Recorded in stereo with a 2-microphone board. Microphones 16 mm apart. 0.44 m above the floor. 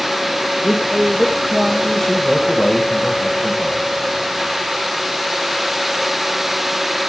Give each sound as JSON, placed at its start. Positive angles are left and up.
{"t": 0.6, "sound": "a man speaking", "side_deg": 5, "distance_m": 2.0}